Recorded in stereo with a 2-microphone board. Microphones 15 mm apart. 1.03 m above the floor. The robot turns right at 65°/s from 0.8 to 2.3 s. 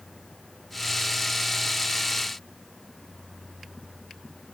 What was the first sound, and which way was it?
Only background noise.